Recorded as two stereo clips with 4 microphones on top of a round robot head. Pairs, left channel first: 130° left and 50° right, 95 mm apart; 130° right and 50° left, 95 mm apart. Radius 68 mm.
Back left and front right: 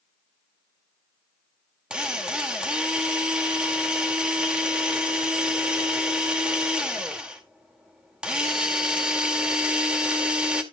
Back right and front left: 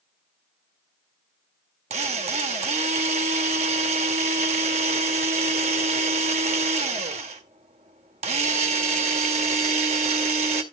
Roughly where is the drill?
Ahead left.